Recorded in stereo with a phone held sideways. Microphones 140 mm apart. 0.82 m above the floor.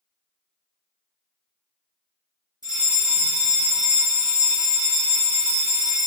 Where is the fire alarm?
30° right (ahead or behind), 2.0 m.